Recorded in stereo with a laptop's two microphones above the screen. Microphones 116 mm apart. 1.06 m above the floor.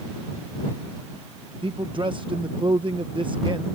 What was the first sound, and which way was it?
A man speaking, 45° right (ahead or behind).